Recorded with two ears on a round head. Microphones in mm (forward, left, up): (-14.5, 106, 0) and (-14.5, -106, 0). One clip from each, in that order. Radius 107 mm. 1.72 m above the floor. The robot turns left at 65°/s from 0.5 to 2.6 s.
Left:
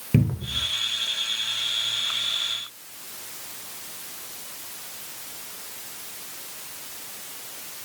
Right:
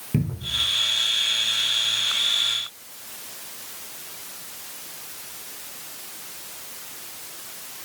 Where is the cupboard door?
35° left (ahead or behind), 0.6 m; by 0.7 s 30° left (ahead or behind), 0.6 m.